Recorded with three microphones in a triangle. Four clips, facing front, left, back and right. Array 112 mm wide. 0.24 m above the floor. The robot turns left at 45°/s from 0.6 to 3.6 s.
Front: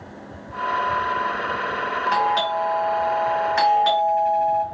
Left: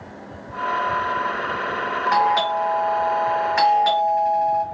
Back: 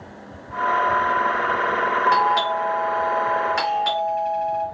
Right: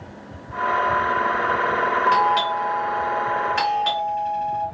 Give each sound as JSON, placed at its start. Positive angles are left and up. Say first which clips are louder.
{"t": 2.1, "sound": "a doorbell", "louder": "even, back 2 dB", "azimuth_deg": 120, "distance_m": 1.6}